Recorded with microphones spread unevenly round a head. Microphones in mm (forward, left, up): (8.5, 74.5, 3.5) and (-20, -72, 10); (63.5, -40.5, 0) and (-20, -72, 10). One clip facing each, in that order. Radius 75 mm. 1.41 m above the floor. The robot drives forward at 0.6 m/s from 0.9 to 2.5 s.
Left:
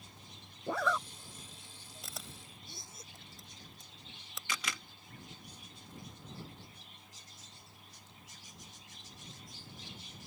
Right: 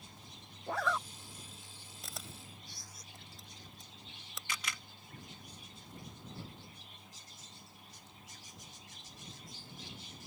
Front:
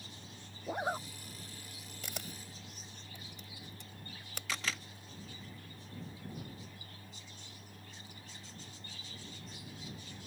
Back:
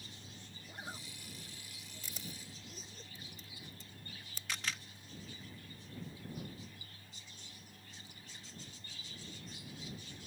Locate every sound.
0.7 s a zipper: 80° left; by 3.0 s 145° left
2.0 s a camera shutter: 10° right
4.5 s a camera shutter: 55° left